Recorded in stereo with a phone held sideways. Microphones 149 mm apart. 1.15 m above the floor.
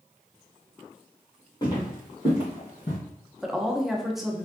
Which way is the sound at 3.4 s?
Centre (ahead or behind).